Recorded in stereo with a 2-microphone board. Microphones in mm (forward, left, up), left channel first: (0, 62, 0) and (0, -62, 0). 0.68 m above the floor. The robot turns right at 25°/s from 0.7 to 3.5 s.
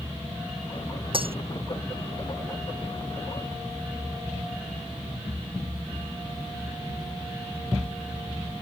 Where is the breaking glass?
45° right (ahead or behind); by 1.4 s 50° right (ahead or behind).